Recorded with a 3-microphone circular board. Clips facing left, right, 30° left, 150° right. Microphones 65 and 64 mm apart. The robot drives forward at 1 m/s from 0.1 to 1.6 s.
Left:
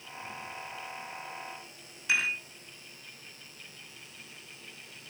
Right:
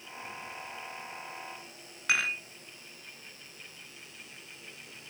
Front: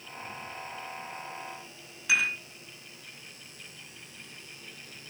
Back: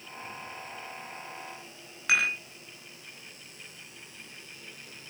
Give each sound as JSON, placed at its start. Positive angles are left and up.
{"t": 2.1, "sound": "dishes clattering", "azimuth_deg": -120, "distance_m": 3.5}